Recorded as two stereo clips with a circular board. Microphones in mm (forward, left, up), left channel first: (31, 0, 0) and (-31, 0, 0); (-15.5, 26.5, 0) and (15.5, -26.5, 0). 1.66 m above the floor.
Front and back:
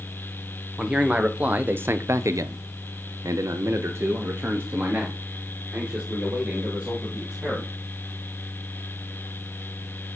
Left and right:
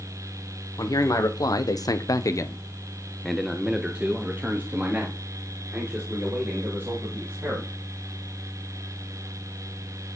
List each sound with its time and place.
0.8 s a man speaking: 105° left, 1.2 m; by 7.7 s 110° right, 3 m